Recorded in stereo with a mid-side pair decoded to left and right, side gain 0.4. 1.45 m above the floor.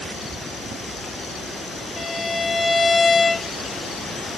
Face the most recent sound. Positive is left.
turn(degrees=25)